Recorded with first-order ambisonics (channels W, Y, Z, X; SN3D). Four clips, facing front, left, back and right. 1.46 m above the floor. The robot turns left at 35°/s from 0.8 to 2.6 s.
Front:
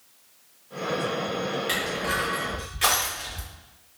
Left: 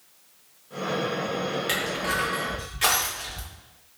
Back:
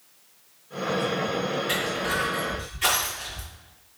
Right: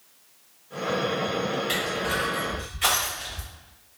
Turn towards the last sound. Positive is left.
turn(degrees=45)